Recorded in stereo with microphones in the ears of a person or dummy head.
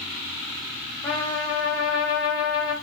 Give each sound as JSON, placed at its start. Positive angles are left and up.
{"t": 1.0, "sound": "a trumpet", "side_deg": 35, "distance_m": 1.6}